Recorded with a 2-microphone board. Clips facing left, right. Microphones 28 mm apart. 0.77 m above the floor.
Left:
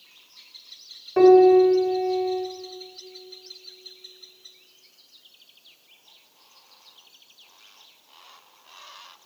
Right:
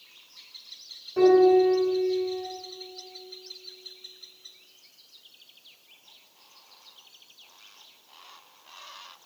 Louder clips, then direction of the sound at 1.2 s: Left 4 dB; 45° left (ahead or behind).